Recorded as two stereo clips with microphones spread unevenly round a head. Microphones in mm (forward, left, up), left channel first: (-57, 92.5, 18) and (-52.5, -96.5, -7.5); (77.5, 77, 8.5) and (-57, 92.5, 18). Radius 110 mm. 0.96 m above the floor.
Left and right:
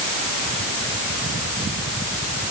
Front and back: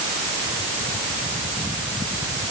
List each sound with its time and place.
Only background noise.